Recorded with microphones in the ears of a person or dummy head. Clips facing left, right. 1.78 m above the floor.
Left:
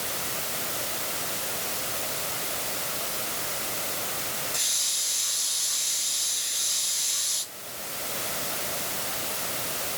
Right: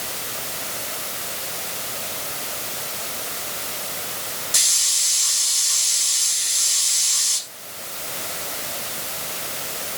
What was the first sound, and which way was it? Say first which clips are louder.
A hiss: right 1 dB; 80° right.